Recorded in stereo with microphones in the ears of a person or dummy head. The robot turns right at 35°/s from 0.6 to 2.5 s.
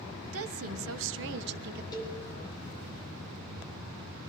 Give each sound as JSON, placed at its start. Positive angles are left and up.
{"t": 0.2, "sound": "a woman speaking", "azimuth_deg": -100, "distance_m": 1.2}
{"t": 1.9, "sound": "a cowbell", "side_deg": 20, "distance_m": 5.5}